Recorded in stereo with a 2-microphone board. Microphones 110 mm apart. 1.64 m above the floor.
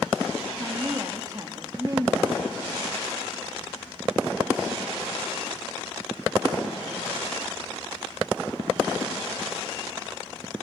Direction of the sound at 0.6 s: 30° right (ahead or behind).